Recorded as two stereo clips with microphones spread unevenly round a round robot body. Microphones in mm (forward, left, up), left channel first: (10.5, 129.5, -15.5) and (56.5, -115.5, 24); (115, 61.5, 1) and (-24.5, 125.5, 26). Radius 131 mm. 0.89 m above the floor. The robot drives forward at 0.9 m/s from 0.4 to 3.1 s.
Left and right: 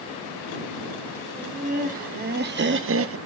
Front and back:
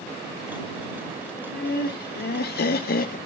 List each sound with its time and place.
1.3 s laughter: 15° right, 2.5 m; by 3.2 s 45° right, 1.0 m